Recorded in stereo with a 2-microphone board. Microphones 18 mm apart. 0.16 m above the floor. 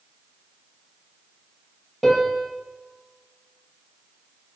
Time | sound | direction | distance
2.0 | a piano | 10° left (ahead or behind) | 5 m